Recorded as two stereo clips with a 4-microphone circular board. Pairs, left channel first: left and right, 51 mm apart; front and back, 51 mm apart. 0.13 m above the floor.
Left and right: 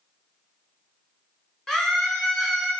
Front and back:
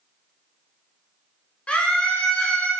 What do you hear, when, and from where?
1.7 s a scream: 20° left, 1.5 m